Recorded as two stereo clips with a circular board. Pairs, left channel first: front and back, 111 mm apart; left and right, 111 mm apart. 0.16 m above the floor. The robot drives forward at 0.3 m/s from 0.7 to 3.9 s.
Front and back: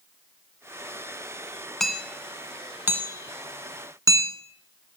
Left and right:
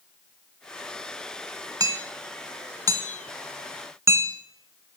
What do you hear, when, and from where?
1.8 s hammering: 85° right, 0.9 m; by 4.3 s 140° right, 1.1 m